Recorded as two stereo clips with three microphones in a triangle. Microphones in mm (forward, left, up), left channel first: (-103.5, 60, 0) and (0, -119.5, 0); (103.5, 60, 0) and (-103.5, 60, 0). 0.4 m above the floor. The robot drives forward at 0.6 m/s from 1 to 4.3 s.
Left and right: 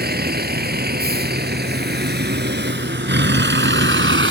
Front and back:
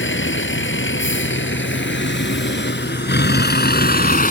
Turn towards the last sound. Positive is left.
turn(degrees=-45)